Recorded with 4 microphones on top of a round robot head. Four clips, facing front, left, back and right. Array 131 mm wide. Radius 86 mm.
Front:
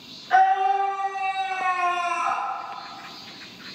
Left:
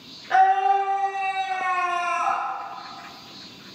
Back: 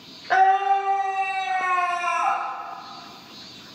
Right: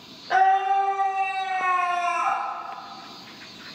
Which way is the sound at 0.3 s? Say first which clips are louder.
Left 1 dB, back 1 dB; 165° right.